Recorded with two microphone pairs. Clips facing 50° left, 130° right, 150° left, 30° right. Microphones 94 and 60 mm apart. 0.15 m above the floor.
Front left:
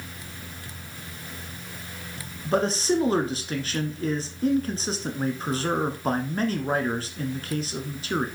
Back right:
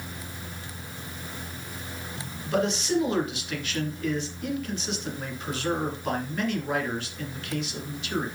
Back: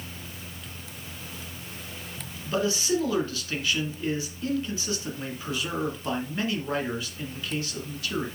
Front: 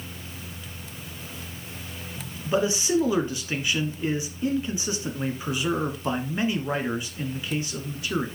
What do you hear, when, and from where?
2.5 s a man speaking: 30° left, 1.4 m